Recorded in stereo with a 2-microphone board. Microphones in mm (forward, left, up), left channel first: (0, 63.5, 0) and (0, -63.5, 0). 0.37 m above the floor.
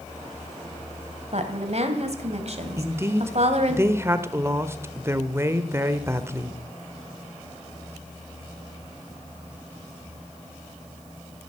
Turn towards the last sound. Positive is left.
turn(degrees=-20)  # may be behind; listen again after turning